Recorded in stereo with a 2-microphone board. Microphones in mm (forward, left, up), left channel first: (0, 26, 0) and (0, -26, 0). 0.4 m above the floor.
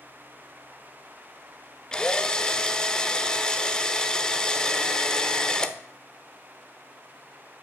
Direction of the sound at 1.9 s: 15° left (ahead or behind).